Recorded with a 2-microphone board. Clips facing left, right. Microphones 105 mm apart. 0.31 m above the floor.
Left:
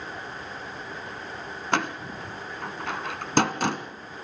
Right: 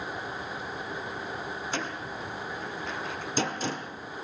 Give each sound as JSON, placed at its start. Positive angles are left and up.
{"t": 1.7, "sound": "a door slam", "side_deg": 70, "distance_m": 1.8}